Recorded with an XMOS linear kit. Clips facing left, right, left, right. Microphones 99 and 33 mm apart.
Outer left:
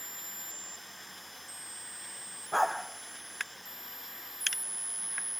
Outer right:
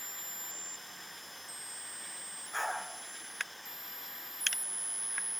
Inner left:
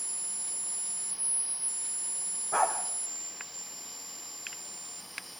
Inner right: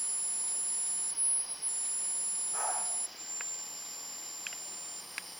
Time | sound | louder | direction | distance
2.5 | a dog barking | outer left 8 dB, inner left 10 dB | 60° left (ahead or behind) | 4 m